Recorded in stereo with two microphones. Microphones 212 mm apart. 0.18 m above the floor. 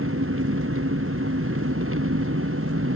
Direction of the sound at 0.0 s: 85° right.